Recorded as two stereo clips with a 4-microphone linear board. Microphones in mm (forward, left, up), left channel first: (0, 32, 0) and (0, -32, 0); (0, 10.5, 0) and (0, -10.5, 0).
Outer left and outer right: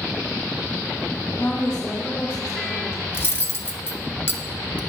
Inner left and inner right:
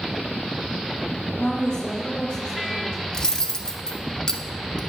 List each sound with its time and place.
1.4 s a woman speaking: 45° left (ahead or behind), 1.7 m
3.1 s cutlery clinking: 35° left (ahead or behind), 0.5 m